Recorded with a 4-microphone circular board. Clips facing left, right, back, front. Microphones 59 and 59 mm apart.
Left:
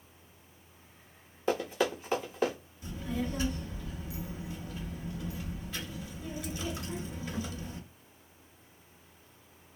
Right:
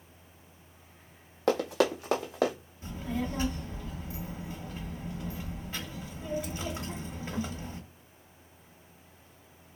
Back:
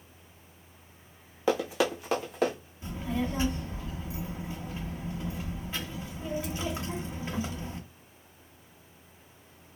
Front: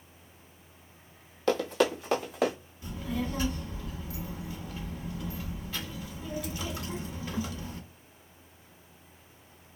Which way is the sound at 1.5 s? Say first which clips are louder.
Right 4 dB, front 1 dB; 105° right.